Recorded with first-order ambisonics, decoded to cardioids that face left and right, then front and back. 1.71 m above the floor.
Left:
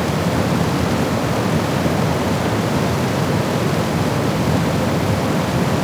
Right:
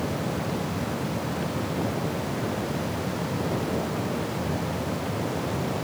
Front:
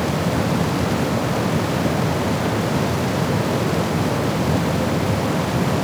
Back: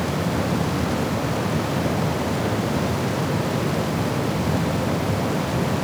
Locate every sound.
Only background noise.